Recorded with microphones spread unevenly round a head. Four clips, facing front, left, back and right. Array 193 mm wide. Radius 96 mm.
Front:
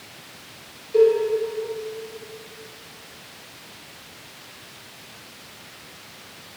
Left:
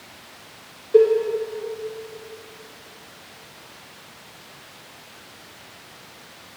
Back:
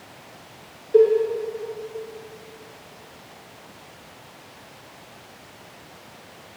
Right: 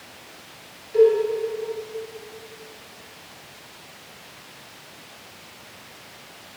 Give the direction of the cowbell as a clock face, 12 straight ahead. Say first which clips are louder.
Left 1 dB, back 1 dB; 8 o'clock.